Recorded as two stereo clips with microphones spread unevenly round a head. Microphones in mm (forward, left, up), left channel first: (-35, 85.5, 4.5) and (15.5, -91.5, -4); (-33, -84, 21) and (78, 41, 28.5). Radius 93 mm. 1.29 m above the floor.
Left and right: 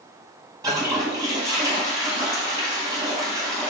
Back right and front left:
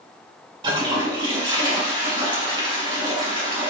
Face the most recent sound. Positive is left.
turn(degrees=-5)